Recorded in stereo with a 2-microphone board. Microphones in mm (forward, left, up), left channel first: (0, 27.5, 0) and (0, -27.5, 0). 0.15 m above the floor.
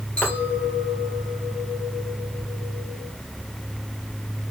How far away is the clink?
About 2 m.